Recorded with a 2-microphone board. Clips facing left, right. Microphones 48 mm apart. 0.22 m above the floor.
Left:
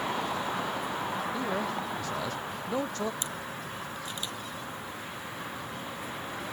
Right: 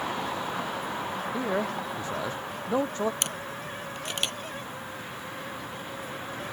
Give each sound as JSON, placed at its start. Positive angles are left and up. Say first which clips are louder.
{"t": 1.3, "sound": "a man speaking", "louder": "right 2 dB", "side_deg": -25}
{"t": 3.2, "sound": "a camera shutter", "louder": "right 3 dB", "side_deg": -75}